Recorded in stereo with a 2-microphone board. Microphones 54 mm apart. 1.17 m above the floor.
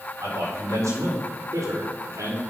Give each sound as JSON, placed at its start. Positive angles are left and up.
{"t": 0.2, "sound": "a man speaking", "side_deg": -75, "distance_m": 4.5}